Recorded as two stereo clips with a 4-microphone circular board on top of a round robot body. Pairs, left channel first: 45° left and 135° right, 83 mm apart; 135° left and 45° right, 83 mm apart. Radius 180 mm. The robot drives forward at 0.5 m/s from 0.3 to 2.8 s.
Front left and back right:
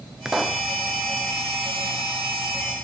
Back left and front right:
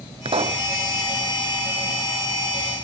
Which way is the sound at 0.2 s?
50° right.